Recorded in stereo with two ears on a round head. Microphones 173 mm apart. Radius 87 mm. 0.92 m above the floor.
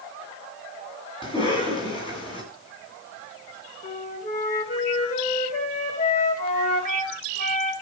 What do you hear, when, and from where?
1.2 s a cough: 25° left (ahead or behind), 8 m
3.8 s a flute: 40° left (ahead or behind), 3 m